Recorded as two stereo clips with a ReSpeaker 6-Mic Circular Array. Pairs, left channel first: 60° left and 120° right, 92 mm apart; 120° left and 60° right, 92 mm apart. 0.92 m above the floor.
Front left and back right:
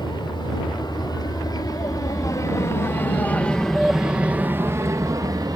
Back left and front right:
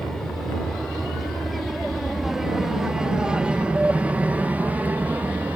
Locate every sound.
0.0 s an aircraft: 35° left; by 5.6 s 125° right